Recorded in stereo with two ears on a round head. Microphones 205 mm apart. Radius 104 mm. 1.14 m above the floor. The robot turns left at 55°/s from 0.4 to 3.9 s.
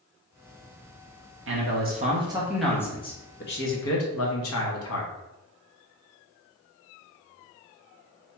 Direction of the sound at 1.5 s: 115° right.